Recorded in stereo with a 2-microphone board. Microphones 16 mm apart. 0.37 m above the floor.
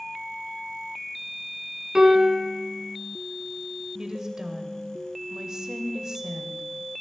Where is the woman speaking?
40° right (ahead or behind), 1.9 m.